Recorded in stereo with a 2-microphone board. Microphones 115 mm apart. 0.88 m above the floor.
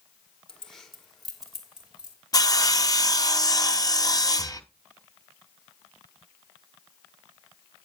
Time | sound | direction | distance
0.5 | keys jangling | 5° left (ahead or behind) | 1.6 m
2.3 | sawing | 30° left (ahead or behind) | 0.6 m
4.4 | breathing | 5° left (ahead or behind) | 0.5 m